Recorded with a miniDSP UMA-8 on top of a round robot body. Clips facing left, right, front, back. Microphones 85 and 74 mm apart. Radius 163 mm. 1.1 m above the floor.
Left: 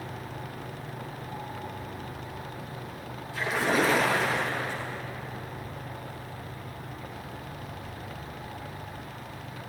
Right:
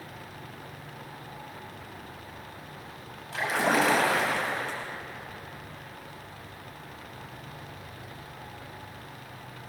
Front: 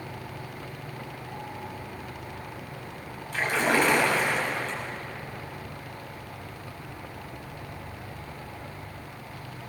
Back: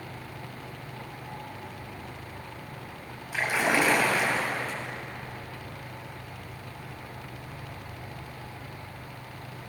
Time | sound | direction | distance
3.3 | a splash | 100° right | 4 m